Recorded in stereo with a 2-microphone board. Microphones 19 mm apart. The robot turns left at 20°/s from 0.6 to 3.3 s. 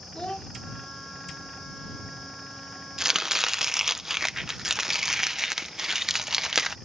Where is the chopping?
30° right (ahead or behind); by 6.8 s 25° right (ahead or behind).